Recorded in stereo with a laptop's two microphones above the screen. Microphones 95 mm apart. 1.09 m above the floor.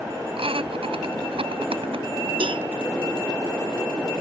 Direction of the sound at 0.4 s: 80° right.